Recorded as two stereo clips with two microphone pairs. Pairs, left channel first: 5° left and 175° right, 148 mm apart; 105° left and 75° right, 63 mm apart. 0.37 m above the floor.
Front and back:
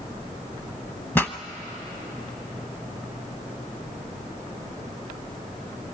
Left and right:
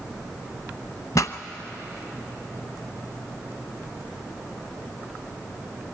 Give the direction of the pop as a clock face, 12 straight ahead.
9 o'clock.